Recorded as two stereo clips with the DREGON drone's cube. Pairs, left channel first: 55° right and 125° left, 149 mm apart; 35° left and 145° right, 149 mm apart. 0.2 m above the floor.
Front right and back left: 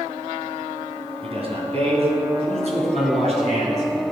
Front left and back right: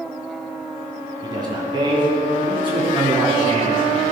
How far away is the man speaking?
About 2 m.